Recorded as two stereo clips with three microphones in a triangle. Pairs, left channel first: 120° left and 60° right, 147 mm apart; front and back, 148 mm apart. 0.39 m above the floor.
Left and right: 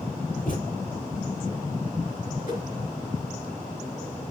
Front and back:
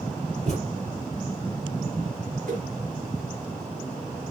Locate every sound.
0.5 s a thud: 140° left, 4 m
2.5 s a whoosh: 150° left, 3 m